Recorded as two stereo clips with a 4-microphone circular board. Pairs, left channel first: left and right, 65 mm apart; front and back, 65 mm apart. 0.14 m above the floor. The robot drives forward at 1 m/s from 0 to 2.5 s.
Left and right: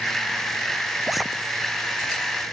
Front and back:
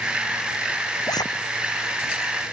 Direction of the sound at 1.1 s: Straight ahead.